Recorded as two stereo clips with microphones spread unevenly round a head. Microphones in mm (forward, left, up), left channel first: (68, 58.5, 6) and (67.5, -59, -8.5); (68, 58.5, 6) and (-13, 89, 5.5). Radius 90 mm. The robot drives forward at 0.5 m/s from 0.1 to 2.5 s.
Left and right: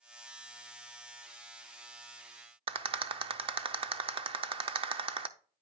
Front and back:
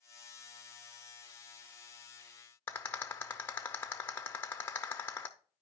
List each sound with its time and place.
2.7 s a rattle: 85° right, 0.5 m